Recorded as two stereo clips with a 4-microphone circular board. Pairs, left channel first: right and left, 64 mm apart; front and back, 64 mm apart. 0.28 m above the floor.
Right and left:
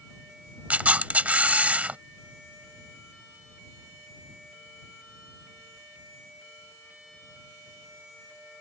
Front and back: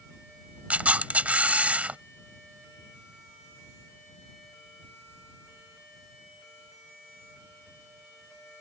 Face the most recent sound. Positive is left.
turn(degrees=135)